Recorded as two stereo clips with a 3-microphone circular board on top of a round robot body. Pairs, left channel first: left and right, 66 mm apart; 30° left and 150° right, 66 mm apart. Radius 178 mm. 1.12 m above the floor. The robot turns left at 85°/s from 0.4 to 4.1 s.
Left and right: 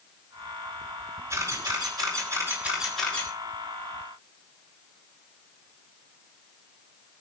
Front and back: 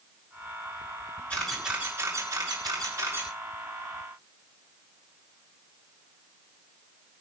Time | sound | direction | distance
1.3 | a camera shutter | 40° right | 7 m